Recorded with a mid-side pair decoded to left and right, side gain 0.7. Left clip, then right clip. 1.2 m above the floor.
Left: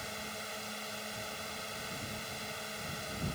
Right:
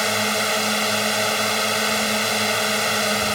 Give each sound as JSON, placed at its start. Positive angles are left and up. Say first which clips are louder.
{"t": 0.0, "sound": "a drone", "louder": "right 21 dB", "azimuth_deg": -65}